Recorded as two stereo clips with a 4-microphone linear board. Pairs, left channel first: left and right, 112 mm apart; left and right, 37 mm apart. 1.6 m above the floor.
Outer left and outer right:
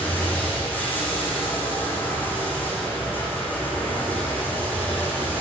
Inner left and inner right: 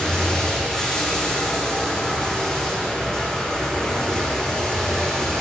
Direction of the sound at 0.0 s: 15° left (ahead or behind).